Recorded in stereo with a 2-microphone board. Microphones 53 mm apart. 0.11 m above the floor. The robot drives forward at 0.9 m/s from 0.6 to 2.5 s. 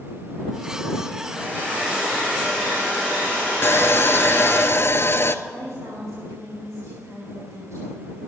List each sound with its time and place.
1.2 s a hair dryer: 30° right (ahead or behind), 6 m; by 4.6 s 25° right (ahead or behind), 7 m
3.6 s sawing: 50° left (ahead or behind), 0.6 m
5.5 s a woman speaking: 65° right (ahead or behind), 4.5 m